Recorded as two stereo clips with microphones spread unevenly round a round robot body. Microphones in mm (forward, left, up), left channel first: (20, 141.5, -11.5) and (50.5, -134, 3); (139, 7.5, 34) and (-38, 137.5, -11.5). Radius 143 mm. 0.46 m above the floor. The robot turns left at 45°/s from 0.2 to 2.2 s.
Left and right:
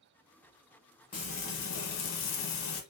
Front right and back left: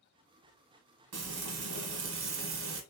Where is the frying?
170° left, 1.0 m; by 2.8 s 120° left, 1.0 m.